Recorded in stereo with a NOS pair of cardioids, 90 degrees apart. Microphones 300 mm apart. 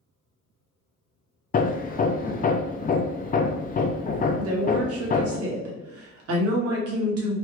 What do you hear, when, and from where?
1.5 s hammering: 30° left, 0.5 m
4.4 s a woman speaking: 55° right, 1.3 m